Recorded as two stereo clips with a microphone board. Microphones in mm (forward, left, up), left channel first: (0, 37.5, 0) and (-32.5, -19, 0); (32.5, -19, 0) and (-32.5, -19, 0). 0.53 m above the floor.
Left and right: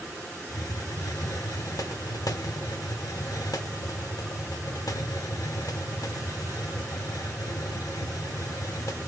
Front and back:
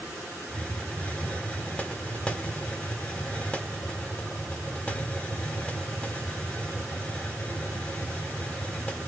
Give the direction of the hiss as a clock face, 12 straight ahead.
10 o'clock.